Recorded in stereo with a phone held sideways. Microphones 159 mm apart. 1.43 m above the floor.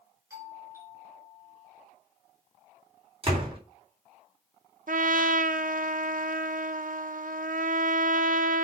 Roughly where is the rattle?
No rattle in this recording.